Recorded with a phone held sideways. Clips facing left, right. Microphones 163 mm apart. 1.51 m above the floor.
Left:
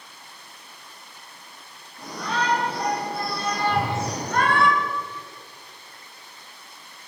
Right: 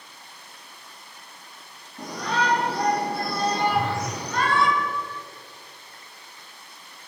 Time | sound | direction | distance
2.0 | a shout | 80° right | 2.5 m
3.7 | a whoosh | 80° left | 3.5 m